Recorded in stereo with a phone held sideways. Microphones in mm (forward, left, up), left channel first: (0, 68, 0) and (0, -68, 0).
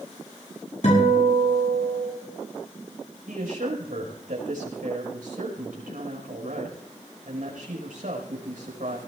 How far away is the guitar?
About 8 m.